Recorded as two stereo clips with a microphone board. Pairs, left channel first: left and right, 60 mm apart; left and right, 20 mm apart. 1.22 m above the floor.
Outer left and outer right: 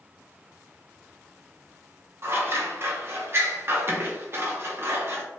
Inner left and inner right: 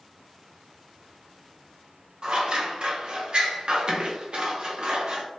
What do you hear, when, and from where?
2.2 s scissors: 45° right (ahead or behind), 0.7 m